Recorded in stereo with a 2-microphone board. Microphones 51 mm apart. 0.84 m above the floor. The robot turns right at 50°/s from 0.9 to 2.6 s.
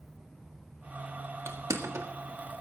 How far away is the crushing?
About 1.7 m.